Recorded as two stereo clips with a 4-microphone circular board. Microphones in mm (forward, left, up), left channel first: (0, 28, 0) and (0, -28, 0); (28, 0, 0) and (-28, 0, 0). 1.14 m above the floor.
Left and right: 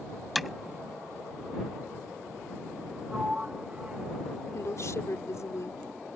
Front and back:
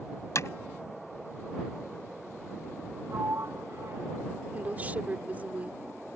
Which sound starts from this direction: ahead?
Hammering, at 0.3 s.